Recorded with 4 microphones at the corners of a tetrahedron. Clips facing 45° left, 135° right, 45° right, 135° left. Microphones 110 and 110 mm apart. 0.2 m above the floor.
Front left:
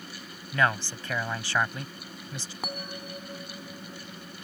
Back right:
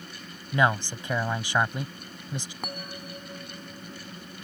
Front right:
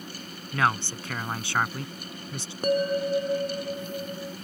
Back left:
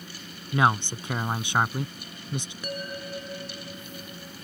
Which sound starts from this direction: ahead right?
A bell, at 2.6 s.